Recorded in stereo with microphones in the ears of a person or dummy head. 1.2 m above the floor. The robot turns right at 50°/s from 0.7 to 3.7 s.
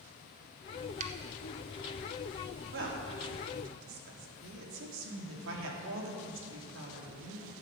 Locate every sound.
1.0 s a finger snap: 40° right (ahead or behind), 1.4 m; by 1.1 s 35° right (ahead or behind), 1.4 m
2.7 s a woman speaking: 125° right, 2.5 m; by 7.5 s 75° right, 2.5 m